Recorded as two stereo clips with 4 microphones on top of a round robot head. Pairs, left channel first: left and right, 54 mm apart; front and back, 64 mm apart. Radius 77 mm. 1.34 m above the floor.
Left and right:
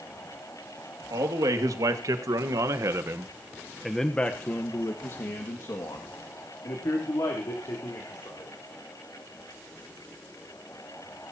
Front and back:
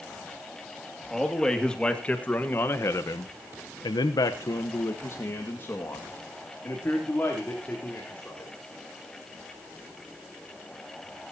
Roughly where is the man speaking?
Right.